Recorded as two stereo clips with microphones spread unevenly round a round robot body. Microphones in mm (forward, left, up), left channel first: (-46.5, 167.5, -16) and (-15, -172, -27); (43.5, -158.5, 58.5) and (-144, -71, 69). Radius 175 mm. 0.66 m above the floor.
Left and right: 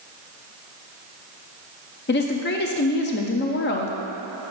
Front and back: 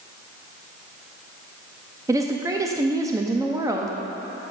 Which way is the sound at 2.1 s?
90° left.